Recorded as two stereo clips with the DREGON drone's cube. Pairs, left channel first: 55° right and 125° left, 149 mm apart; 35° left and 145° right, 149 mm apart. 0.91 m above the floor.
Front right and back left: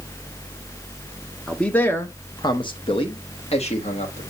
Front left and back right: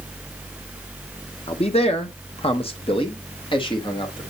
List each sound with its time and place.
1.5 s a man speaking: 30° left, 0.8 m; by 4.2 s 20° right, 1.8 m